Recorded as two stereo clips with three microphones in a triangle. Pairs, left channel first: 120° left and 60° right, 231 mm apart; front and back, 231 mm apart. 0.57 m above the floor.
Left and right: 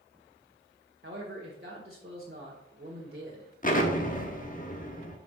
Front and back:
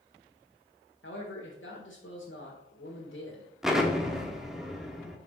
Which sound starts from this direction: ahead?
A man speaking, at 1.0 s.